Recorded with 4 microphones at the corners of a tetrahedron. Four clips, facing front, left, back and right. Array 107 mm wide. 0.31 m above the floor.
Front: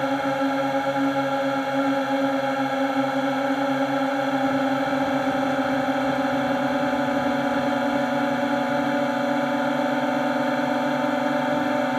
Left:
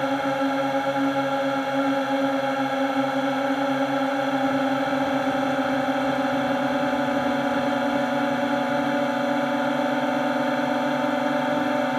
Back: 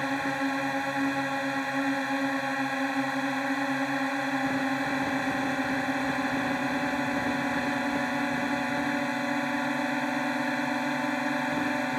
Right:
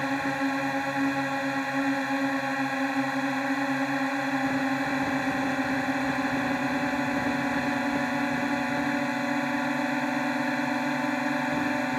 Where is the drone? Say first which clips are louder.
Left 4 dB, front 6 dB; 45° left.